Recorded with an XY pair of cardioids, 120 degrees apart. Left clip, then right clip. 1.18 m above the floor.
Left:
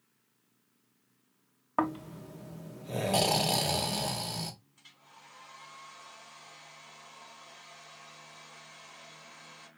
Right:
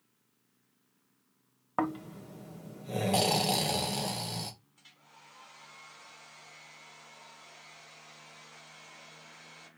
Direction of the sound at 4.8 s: 5° left.